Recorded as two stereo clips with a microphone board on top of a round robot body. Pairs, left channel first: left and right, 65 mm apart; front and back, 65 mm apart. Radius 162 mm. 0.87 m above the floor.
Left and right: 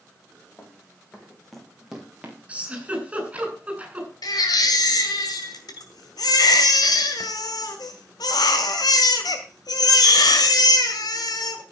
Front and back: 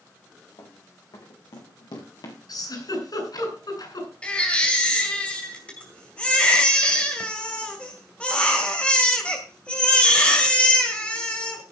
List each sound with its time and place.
0.6 s running footsteps: 25° left, 3.5 m; by 2.4 s 20° right, 3 m
2.5 s a giggle: 15° right, 5.5 m
4.2 s a baby crying: 75° left, 2 m